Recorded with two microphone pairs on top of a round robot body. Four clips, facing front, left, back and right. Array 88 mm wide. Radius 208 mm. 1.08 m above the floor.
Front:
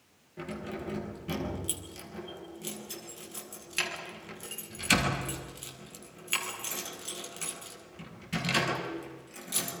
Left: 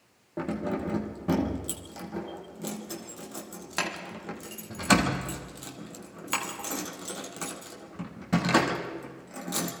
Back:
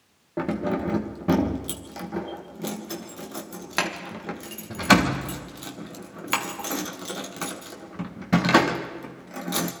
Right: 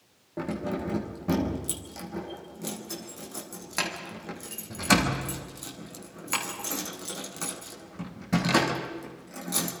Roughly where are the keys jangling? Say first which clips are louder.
Left 1 dB, back 12 dB; behind.